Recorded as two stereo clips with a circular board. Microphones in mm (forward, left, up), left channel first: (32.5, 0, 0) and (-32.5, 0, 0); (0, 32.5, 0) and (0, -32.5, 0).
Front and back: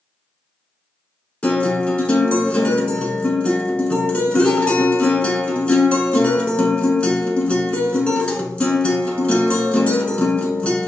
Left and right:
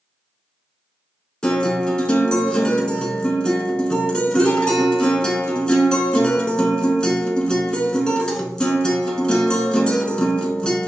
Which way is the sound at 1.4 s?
35° left.